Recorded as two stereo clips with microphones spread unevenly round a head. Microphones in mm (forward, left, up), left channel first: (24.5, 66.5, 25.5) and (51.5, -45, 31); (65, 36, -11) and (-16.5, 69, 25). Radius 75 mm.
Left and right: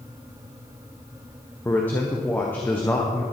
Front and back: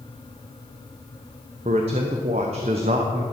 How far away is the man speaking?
About 0.9 m.